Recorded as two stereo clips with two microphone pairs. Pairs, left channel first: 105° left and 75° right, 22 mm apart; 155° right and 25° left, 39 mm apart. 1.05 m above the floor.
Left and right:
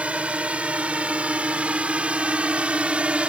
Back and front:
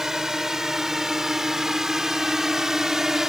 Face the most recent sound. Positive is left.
turn(degrees=-50)